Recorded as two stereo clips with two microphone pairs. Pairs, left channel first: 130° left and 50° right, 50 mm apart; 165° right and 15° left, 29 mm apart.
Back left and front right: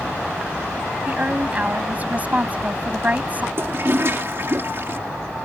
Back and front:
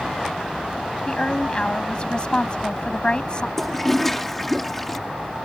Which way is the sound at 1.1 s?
105° right.